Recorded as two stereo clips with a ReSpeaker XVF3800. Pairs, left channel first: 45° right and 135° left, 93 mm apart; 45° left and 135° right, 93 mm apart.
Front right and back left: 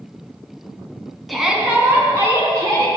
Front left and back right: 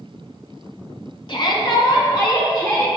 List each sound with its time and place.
1.3 s a shout: 45° left, 1.8 m; by 2.9 s 90° left, 3 m